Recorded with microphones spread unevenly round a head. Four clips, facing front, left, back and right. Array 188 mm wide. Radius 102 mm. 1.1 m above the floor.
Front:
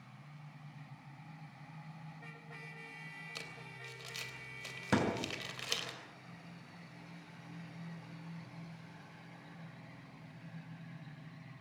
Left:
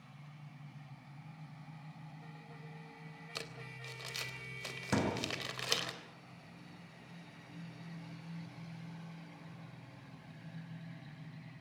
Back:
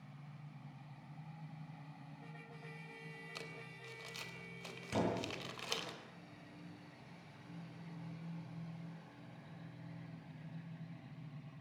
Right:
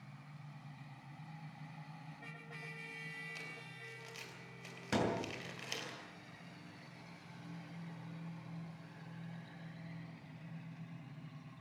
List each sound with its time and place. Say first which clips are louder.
3.4 s crumpling: left 4 dB, front 1 dB; 80° left, 3 m
4.9 s a thud: left 1 dB, front 4 dB; 10° left, 6 m